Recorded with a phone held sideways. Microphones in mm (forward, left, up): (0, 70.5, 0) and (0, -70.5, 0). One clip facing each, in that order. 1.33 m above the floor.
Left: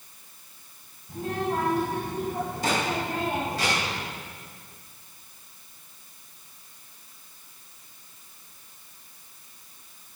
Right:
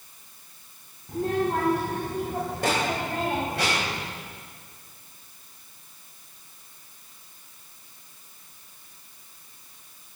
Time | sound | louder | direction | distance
1.1 | a child speaking | right 4 dB | 65° right (ahead or behind) | 2 m